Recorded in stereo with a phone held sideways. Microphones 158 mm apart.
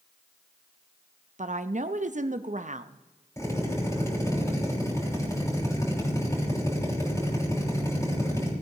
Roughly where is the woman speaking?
Right.